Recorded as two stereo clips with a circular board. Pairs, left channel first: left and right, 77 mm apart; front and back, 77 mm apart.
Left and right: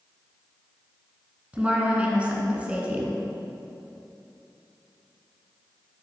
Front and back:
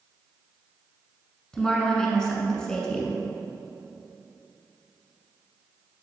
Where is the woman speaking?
60° right, 1.1 m.